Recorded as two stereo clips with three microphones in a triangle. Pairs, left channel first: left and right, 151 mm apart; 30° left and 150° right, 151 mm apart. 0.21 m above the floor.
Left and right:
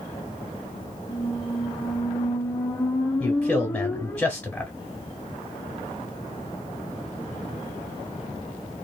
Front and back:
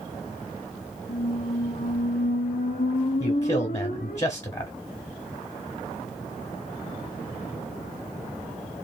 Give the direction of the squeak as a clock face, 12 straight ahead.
11 o'clock.